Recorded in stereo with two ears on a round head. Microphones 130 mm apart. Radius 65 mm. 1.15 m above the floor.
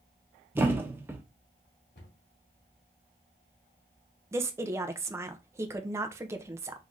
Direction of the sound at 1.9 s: 65° left (ahead or behind).